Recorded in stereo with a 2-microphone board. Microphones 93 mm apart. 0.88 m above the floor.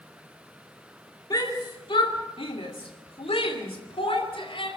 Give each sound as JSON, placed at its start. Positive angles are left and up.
{"t": 1.3, "sound": "a shout", "side_deg": 40, "distance_m": 2.5}